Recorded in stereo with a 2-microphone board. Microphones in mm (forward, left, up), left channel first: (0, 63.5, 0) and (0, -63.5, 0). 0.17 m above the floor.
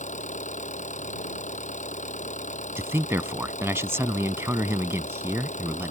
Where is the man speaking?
20° right (ahead or behind).